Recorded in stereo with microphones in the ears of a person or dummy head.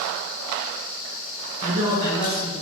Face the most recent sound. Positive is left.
turn(degrees=-50)  # may be behind; listen again after turning